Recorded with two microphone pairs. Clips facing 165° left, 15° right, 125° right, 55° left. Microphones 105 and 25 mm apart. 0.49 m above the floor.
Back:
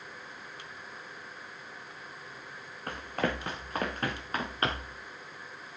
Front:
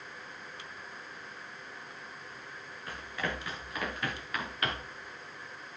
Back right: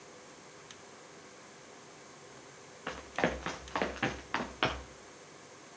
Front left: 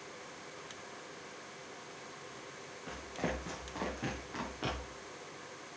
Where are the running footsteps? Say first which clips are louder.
Back 5 dB, back right 5 dB; 155° right, 3 m; by 5.0 s 135° right, 3.5 m.